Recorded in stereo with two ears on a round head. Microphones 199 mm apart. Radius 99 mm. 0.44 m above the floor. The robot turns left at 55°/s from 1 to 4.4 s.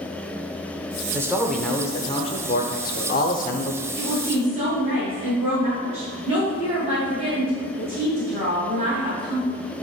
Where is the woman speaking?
50° right (ahead or behind), 3 m; by 9.6 s 30° right (ahead or behind), 3 m.